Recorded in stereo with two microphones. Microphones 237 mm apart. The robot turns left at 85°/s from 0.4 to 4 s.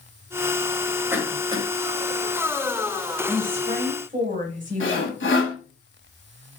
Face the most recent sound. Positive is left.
turn(degrees=55)  # may be behind; listen again after turning